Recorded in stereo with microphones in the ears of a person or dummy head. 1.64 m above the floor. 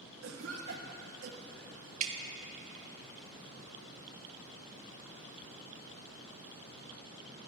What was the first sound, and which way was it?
A cough, 80° right.